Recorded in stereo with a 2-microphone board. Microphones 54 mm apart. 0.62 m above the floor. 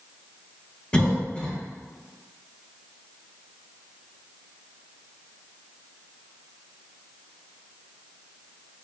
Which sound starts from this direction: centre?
A cough, at 0.9 s.